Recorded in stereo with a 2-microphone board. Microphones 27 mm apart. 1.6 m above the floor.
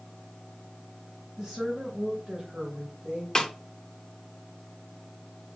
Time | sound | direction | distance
1.4 | a woman speaking | centre (ahead or behind) | 3 m
3.4 | a snare drum | 25° left (ahead or behind) | 0.9 m